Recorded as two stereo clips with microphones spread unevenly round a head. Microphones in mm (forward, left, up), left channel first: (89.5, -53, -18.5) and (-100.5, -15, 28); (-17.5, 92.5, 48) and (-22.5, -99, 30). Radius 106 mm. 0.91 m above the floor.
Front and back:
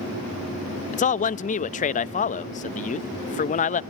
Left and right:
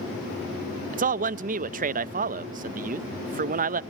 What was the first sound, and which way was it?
A man speaking, 50° right.